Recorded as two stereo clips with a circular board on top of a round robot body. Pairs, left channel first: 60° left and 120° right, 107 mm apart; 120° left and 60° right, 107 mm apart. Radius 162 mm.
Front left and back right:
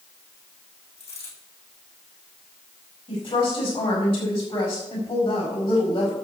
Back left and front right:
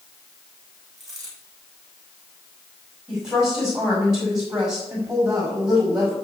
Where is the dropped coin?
30° left, 6 m.